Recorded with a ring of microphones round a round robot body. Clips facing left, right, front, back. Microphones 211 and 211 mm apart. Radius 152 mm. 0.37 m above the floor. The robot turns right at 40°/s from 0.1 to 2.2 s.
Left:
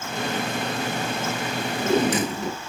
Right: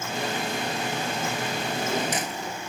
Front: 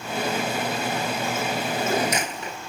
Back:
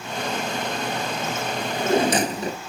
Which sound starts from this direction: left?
A drawer, at 1.6 s.